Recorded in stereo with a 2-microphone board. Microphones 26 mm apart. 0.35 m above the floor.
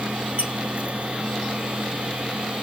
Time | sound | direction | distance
0.4 | a squeak | 45° right (ahead or behind) | 1.0 m